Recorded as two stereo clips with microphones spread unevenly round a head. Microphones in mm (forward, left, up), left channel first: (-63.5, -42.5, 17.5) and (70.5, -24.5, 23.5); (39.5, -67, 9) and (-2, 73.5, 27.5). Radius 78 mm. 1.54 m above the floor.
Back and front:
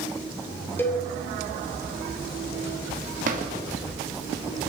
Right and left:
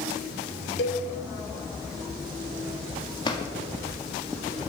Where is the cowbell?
95° right, 2.5 m.